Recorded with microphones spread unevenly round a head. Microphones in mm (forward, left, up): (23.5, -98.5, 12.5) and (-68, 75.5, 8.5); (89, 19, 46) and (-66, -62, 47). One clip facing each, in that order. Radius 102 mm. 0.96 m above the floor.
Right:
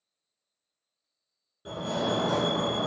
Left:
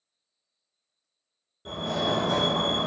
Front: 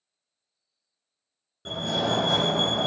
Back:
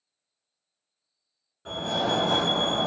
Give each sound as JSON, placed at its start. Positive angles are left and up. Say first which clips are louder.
{"t": 1.6, "sound": "a fire alarm", "louder": "left 1 dB, even", "azimuth_deg": 10, "distance_m": 1.4}